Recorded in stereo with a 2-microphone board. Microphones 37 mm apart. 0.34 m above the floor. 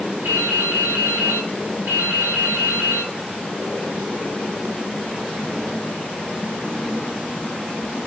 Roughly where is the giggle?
I don't hear a giggle.